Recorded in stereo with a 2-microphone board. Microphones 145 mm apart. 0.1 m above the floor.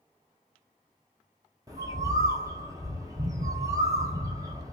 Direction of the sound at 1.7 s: 25° right (ahead or behind).